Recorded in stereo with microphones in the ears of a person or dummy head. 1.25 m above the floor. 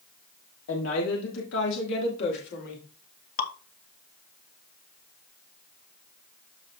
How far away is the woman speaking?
About 1.8 m.